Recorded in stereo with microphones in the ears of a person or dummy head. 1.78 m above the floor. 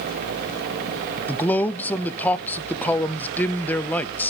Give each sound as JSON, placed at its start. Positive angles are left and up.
{"t": 1.3, "sound": "a man speaking", "side_deg": 10, "distance_m": 0.8}